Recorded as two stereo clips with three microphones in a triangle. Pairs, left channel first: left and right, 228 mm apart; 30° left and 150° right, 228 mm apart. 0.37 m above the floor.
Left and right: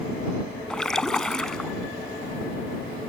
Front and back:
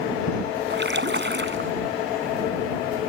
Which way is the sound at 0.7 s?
175° left.